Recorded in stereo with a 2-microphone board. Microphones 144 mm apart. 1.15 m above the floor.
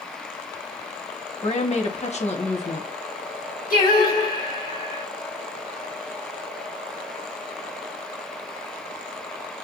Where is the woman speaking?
50° left (ahead or behind), 0.9 m.